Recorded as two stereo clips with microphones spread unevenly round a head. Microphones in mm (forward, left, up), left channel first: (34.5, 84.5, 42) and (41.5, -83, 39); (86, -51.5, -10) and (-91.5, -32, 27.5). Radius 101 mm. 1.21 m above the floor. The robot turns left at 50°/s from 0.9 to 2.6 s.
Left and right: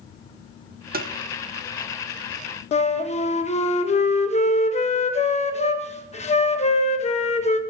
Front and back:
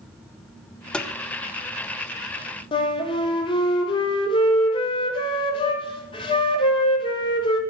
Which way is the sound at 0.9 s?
80° right.